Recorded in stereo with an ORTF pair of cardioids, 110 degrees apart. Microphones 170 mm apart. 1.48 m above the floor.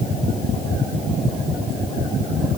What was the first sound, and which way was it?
Only background noise.